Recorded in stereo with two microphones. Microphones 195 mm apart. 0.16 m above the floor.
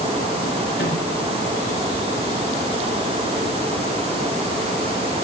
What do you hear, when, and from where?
0.8 s a microwave: 60° left (ahead or behind), 10 m